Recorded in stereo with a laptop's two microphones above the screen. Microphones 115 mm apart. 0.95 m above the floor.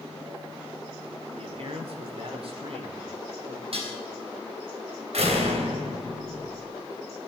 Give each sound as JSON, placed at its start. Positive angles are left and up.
{"t": 1.3, "sound": "a man speaking", "side_deg": -60, "distance_m": 3.0}
{"t": 3.7, "sound": "dishes clattering", "side_deg": -65, "distance_m": 3.5}
{"t": 5.1, "sound": "a door slam", "side_deg": -75, "distance_m": 3.0}